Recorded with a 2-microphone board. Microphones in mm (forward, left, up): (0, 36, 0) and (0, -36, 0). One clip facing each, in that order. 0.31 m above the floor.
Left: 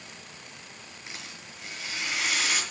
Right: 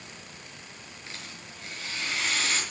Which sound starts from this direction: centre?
A rattle, at 1.1 s.